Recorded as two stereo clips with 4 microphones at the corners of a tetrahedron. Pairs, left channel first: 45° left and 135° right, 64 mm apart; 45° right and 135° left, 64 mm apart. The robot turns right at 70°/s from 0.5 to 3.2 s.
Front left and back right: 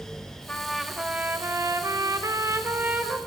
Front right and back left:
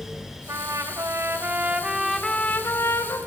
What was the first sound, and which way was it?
A trumpet, 115° left.